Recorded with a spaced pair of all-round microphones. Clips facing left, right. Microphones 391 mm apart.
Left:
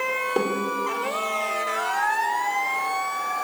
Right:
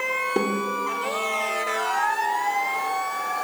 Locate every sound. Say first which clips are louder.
0.4 s a snare drum: even; 35° right (ahead or behind), 3.5 m